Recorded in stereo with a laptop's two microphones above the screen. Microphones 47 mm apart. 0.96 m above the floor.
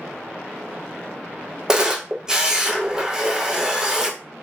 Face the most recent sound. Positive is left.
turn(degrees=-15)  # may be behind; listen again after turning